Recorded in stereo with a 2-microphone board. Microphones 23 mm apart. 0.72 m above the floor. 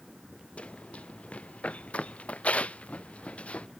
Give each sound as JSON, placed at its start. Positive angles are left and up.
{"t": 0.6, "sound": "running footsteps", "side_deg": 70}